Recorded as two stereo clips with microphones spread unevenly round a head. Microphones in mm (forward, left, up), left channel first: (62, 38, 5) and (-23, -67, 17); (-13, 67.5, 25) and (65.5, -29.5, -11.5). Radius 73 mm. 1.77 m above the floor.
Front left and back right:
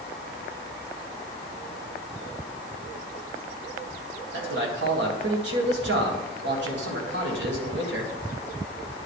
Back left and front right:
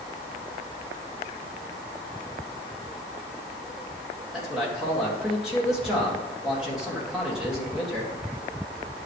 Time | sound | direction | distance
4.3 | a man speaking | 140° right | 2.0 m